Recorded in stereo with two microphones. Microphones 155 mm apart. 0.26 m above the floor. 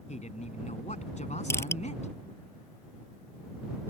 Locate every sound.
0.1 s a man speaking: 50° left (ahead or behind)
1.5 s crushing: 15° left (ahead or behind)